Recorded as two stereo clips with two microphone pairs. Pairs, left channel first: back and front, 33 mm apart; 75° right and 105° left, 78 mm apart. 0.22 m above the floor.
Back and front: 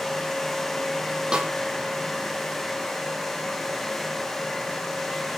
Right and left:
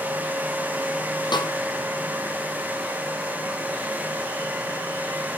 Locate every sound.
1.3 s a snare drum: 60° right, 6 m